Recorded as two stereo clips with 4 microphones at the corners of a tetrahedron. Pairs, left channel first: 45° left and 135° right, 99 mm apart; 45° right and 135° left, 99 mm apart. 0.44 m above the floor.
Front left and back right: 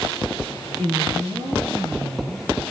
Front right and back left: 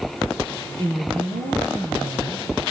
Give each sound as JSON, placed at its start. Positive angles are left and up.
{"t": 0.8, "sound": "a woman speaking", "azimuth_deg": 170, "distance_m": 7.5}